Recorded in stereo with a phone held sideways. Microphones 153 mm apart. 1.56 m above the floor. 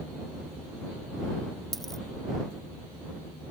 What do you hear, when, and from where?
1.7 s a dropped coin: centre (ahead or behind)